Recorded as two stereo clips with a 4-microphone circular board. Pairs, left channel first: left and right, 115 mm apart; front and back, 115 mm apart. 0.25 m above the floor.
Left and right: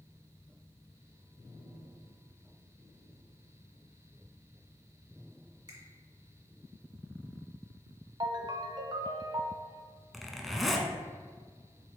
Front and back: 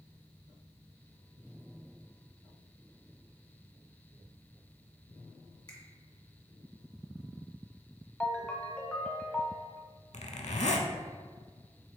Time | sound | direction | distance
5.7 | a finger snap | 45° right | 1.5 m
8.2 | a ringtone | 75° right | 0.5 m
10.1 | a zipper | straight ahead | 0.5 m